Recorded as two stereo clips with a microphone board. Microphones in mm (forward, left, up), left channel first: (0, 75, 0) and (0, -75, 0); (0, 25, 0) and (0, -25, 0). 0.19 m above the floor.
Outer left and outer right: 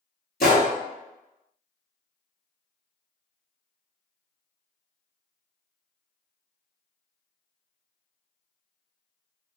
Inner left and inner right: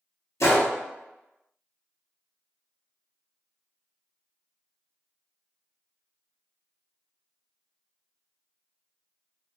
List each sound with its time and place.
0.4 s a gunshot: 80° left, 0.8 m